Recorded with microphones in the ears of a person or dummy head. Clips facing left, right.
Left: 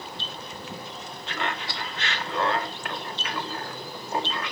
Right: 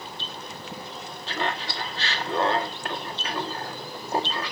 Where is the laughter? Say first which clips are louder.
Right 2 dB; 30° right (ahead or behind), 1.8 m.